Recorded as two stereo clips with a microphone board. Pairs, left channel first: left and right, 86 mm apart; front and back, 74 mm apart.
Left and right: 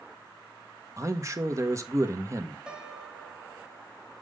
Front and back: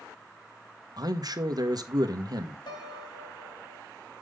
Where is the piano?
10° right, 1.4 m.